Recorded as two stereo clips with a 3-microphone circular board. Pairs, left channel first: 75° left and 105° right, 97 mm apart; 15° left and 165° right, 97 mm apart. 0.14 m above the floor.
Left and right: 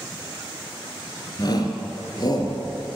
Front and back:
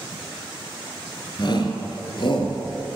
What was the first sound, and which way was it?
A shout, 40° left.